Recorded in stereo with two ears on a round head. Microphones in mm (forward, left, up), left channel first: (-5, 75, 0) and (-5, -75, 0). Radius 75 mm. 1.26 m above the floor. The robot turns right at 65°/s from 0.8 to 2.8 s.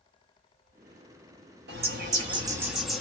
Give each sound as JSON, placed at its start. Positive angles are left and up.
{"t": 1.7, "sound": "a bird", "azimuth_deg": -75, "distance_m": 0.9}